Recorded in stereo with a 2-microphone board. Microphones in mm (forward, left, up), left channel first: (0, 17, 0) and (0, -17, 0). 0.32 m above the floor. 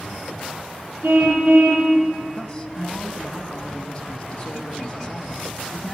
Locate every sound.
1.0 s a car horn: 85° right, 6.5 m
2.4 s a man speaking: 20° left (ahead or behind), 2 m